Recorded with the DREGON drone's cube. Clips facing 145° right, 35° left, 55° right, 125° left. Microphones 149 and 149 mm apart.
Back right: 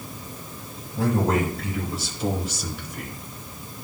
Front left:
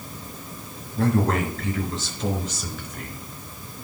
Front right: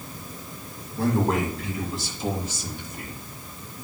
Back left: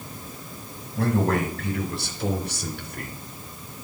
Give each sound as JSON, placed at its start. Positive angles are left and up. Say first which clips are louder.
{"t": 1.0, "sound": "a man speaking", "louder": "even, even", "azimuth_deg": 140, "distance_m": 4.5}